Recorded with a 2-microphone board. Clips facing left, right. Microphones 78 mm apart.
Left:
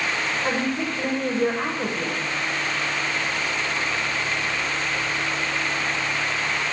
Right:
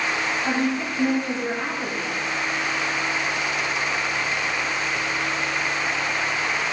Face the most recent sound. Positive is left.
turn(degrees=80)